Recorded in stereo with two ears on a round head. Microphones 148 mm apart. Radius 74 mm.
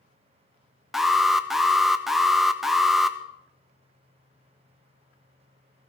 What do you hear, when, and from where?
0.9 s an alarm: centre (ahead or behind), 1.0 m